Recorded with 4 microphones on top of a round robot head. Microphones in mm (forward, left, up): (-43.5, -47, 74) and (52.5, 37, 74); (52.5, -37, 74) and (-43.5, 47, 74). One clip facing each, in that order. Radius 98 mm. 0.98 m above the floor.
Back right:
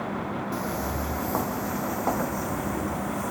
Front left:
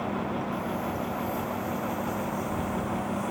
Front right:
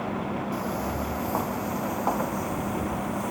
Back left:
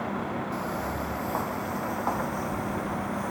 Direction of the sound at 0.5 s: 120° right.